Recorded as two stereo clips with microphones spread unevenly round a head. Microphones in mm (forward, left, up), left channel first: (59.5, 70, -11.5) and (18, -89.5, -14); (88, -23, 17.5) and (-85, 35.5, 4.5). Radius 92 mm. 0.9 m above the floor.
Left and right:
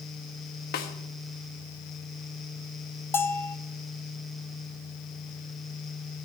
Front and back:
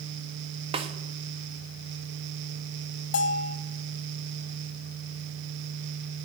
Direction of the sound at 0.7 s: 110° left.